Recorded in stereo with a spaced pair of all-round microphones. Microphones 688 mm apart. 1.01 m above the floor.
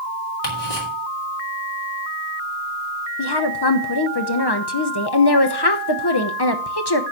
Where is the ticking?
55° left (ahead or behind), 2.5 m.